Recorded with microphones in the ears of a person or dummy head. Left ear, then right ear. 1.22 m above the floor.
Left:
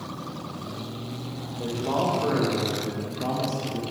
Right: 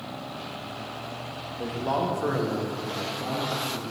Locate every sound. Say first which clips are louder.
1.6 s a man speaking: left 1 dB; 60° right (ahead or behind), 1.0 m; by 3.8 s 20° left (ahead or behind), 0.9 m